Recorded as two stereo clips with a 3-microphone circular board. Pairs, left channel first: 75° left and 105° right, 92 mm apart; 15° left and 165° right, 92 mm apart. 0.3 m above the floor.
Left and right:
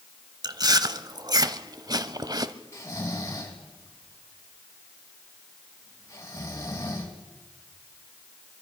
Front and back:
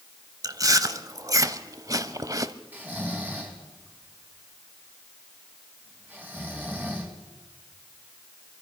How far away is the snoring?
About 2.5 m.